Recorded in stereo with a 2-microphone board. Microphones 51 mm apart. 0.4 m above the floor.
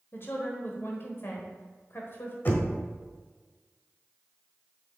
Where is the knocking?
40° left (ahead or behind), 1.3 m.